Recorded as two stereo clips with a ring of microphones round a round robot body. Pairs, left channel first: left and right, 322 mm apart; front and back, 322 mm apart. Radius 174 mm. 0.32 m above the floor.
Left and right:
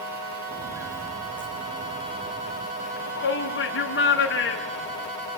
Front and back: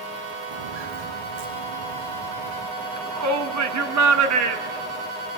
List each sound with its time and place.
0.5 s footsteps: 170° right, 3 m; by 2.7 s straight behind, 5 m
2.8 s a shout: 150° left, 4 m